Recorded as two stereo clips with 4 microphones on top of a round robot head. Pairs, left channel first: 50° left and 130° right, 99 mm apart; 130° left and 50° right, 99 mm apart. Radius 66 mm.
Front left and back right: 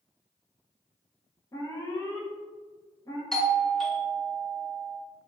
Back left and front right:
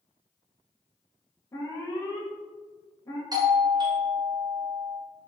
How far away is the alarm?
About 1.9 m.